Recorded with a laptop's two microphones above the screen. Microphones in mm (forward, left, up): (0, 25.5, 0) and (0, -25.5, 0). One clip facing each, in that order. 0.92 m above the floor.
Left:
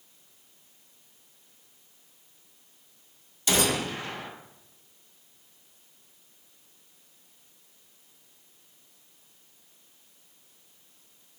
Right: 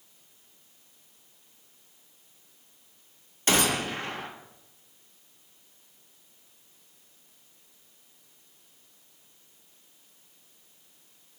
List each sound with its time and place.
3.5 s a gunshot: 45° right (ahead or behind), 0.6 m